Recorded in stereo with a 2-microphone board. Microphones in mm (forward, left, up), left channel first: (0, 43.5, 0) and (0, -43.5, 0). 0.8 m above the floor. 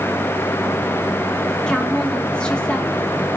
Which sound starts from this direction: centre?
A woman speaking, at 1.7 s.